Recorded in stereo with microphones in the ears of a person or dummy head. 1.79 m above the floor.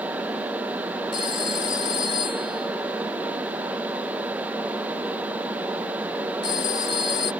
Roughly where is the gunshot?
I don't hear a gunshot.